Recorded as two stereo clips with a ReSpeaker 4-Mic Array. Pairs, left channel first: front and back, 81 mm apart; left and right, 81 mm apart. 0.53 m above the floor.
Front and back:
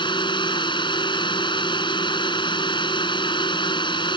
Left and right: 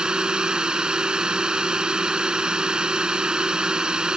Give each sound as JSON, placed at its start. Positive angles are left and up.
{"t": 0.0, "sound": "a drone", "azimuth_deg": -10}